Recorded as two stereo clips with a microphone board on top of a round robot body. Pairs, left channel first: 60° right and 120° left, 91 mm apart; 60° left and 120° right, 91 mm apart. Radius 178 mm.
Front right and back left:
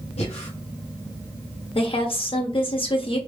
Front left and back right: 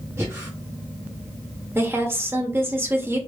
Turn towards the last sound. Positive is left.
turn(degrees=-55)